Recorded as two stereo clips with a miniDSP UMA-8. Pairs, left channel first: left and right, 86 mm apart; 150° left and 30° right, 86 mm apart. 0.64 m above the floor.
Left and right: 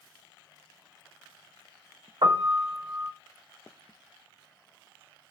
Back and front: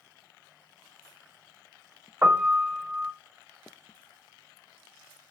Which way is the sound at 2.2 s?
85° right.